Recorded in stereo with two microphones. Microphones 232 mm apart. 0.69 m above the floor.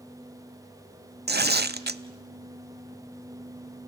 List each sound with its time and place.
1.3 s tearing paper: 45° right (ahead or behind), 0.7 m